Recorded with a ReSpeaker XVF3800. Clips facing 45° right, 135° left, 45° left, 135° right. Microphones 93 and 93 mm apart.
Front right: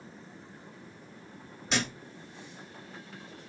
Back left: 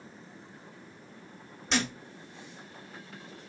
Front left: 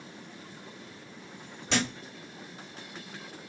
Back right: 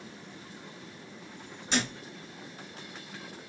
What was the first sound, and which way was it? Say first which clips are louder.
A thud: back left 2 dB, front left 1 dB; 40° left.